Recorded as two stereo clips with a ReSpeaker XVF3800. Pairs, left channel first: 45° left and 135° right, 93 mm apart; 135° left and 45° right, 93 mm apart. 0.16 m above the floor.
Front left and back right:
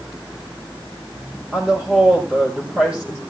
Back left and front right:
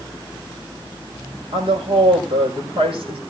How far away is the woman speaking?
About 6 m.